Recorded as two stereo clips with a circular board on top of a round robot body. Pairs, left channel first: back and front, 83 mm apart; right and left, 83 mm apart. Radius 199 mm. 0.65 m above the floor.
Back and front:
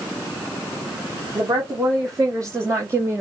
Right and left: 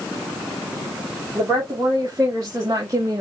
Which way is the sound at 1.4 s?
40° left.